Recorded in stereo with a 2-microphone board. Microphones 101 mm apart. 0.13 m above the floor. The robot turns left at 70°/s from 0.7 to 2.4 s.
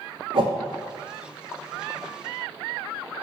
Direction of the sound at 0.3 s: 65° right (ahead or behind).